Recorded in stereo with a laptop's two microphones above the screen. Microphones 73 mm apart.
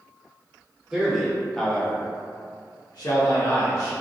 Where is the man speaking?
10° right (ahead or behind), 1.2 m; by 3.9 s 65° left (ahead or behind), 1.2 m.